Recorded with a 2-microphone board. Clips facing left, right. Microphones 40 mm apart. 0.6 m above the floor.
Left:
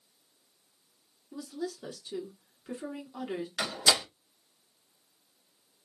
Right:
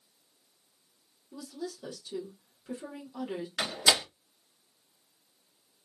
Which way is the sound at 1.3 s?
20° left (ahead or behind).